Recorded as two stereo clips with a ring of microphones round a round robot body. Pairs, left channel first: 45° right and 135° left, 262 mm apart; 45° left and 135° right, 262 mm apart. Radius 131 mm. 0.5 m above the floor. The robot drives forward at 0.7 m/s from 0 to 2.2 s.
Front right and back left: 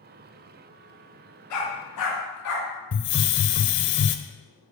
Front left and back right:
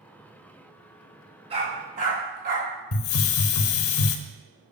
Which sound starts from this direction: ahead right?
A dog barking, at 1.5 s.